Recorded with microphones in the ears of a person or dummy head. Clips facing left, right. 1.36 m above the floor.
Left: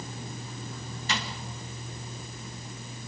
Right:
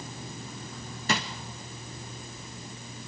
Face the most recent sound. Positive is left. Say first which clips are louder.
# right 4 dB
turn(degrees=-45)  # may be behind; listen again after turning